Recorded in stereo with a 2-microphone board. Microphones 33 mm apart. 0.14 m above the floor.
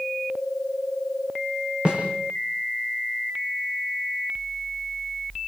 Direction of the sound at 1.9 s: 35° right (ahead or behind).